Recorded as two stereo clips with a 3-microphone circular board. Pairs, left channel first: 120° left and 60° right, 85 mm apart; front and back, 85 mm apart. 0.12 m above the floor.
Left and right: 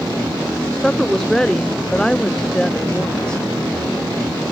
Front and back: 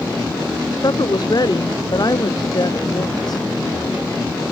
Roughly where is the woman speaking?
Ahead left.